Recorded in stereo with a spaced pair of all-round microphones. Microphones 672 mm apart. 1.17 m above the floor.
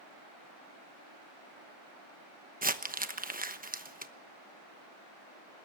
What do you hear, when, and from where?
2.6 s crumpling: 15° right (ahead or behind), 1.0 m